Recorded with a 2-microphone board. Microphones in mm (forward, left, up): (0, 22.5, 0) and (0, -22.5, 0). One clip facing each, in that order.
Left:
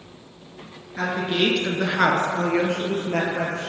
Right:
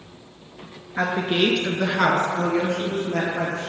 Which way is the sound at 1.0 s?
35° right (ahead or behind).